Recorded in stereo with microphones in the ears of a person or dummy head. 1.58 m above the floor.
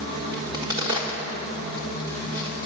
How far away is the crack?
About 1.6 m.